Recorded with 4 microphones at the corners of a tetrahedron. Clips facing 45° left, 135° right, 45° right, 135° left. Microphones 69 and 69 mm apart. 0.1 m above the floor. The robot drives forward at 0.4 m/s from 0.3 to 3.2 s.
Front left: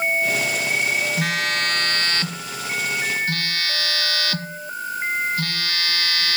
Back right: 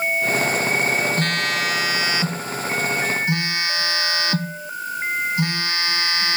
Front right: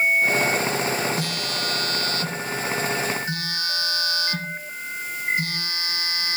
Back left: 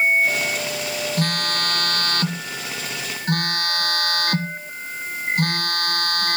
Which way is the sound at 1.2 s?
125° left.